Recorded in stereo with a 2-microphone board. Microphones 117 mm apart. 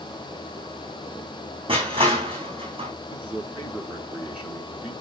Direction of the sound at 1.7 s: 50° right (ahead or behind).